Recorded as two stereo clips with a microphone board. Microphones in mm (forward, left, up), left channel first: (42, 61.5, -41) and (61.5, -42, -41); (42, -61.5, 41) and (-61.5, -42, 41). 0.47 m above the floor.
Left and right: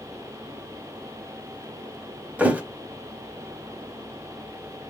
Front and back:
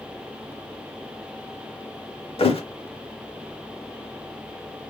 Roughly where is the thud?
Ahead.